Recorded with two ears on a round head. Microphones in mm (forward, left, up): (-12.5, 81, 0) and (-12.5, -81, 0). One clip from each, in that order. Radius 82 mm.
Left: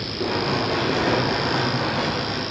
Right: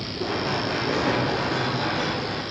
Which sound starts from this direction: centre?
Running footsteps, at 0.2 s.